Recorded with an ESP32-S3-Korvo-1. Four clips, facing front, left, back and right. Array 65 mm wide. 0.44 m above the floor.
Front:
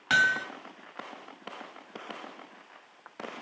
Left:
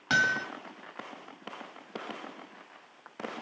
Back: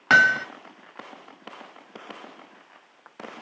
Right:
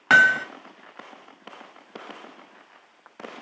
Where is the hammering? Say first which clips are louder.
Right 10 dB, back 7 dB; 130° right, 1.1 m.